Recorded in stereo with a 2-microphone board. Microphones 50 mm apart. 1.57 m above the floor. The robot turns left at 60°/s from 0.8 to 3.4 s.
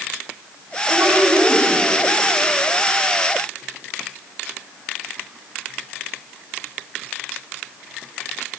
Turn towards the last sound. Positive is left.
turn(degrees=120)